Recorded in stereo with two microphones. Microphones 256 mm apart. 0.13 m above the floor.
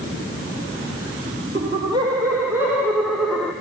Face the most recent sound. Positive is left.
turn(degrees=5)  # may be behind; listen again after turning